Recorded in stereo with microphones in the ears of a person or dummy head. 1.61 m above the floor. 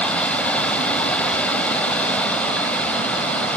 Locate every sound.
0.0 s running water: 5° left (ahead or behind)